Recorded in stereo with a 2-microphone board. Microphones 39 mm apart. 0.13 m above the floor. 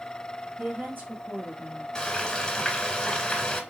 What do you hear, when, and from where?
0.6 s a woman speaking: 55° right (ahead or behind), 3.5 m
1.9 s frying: 20° left (ahead or behind), 1.1 m